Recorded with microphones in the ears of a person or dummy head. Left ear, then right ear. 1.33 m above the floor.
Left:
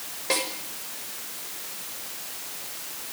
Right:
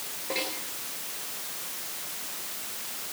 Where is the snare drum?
70° left (ahead or behind), 6.5 m.